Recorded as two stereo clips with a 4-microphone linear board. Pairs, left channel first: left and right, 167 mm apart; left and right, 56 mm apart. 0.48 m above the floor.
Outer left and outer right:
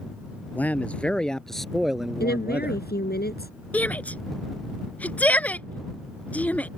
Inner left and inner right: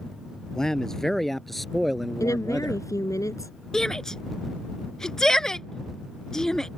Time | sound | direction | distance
0.6 | a man speaking | 10° left (ahead or behind) | ?
2.2 | a woman speaking | 75° left (ahead or behind) | ?
3.7 | a shout | 10° left (ahead or behind) | ?